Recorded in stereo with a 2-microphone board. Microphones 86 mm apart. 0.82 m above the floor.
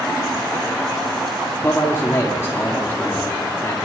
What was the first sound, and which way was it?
A man speaking, 30° left (ahead or behind).